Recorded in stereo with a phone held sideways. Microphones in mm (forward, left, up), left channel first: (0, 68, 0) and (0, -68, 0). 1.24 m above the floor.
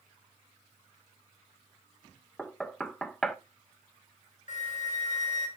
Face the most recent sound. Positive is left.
turn(degrees=65)  # may be behind; listen again after turning